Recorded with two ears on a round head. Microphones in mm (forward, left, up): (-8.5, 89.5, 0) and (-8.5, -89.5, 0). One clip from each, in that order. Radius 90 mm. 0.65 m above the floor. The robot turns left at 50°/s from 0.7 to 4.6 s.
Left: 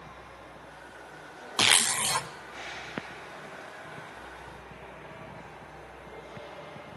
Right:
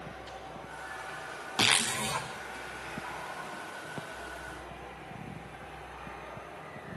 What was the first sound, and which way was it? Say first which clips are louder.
A zipper: left 3 dB; 155° left.